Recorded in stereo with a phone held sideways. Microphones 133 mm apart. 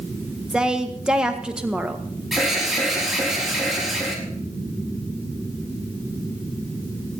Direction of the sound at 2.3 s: Centre (ahead or behind).